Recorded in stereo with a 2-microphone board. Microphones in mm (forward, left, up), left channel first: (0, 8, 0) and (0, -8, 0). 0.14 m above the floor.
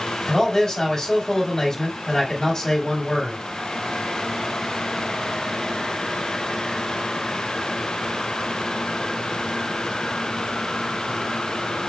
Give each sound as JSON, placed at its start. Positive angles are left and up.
{"t": 0.3, "sound": "a man speaking", "side_deg": 60, "distance_m": 2.5}